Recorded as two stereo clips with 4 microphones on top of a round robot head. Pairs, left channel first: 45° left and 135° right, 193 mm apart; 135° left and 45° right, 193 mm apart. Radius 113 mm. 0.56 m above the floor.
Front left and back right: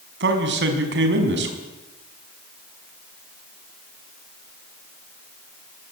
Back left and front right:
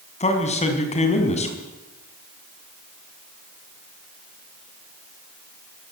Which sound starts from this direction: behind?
A man speaking, at 0.2 s.